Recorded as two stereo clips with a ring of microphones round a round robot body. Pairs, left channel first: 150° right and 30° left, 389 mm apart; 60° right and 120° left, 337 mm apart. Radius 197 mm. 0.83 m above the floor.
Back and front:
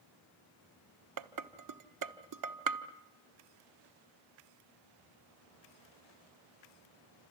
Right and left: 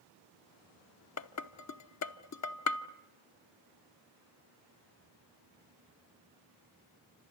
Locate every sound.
1.2 s dishes clattering: 15° right, 1.1 m